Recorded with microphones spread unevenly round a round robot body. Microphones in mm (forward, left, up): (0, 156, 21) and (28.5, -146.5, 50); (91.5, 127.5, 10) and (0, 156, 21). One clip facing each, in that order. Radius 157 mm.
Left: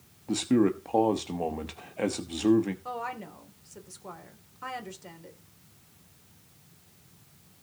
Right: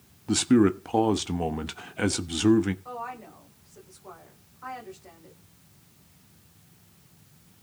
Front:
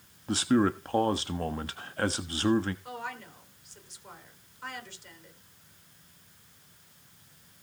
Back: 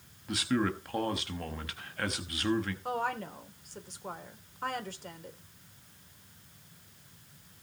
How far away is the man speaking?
About 1.1 m.